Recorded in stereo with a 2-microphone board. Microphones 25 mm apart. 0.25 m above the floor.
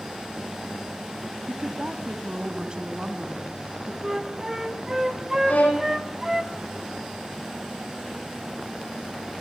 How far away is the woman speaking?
About 1.4 m.